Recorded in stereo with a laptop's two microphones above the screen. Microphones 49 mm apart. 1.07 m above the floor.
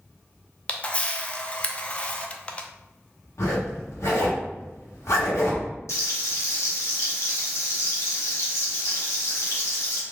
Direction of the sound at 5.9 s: 70° left (ahead or behind).